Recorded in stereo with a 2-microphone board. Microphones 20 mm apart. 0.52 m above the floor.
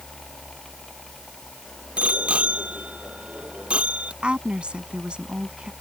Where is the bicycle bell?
80° right; by 4.1 s 75° right (ahead or behind).